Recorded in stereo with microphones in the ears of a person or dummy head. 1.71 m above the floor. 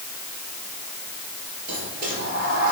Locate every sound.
1.7 s a sliding door: 60° right (ahead or behind), 4.5 m